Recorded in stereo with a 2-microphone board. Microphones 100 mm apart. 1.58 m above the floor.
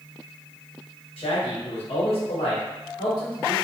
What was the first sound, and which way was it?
A man speaking, 70° left (ahead or behind).